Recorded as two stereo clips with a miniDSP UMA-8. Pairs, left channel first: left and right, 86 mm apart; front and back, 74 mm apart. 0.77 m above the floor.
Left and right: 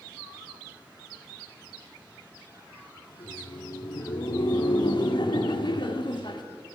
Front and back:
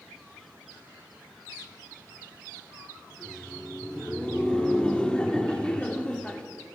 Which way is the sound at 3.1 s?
75° left.